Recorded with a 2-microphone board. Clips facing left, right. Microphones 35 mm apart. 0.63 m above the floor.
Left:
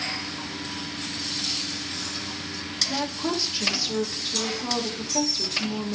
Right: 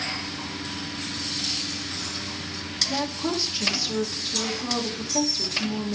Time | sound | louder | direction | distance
2.9 | a woman speaking | even | 10° left (ahead or behind) | 1.8 m